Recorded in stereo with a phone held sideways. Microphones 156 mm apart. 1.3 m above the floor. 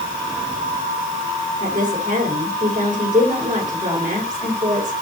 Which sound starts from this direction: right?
A woman speaking, at 1.6 s.